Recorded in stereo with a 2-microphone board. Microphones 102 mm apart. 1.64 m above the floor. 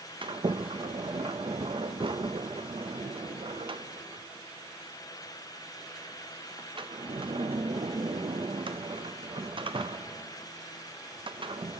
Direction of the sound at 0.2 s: 55° right (ahead or behind).